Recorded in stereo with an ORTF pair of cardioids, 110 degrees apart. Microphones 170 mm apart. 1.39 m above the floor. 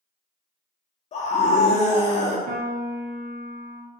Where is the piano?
55° right, 0.6 m.